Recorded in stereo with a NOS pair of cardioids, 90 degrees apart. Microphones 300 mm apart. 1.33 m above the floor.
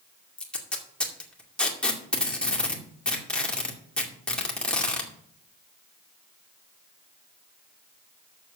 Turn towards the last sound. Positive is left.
turn(degrees=5)